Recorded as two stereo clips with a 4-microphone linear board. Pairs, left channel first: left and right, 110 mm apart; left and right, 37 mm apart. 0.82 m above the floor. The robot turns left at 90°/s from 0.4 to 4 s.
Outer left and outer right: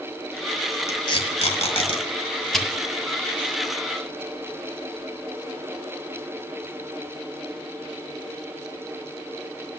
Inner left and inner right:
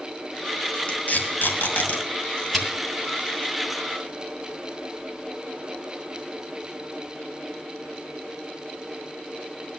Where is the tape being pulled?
25° left (ahead or behind), 2 m; by 2.7 s 5° right (ahead or behind), 2 m.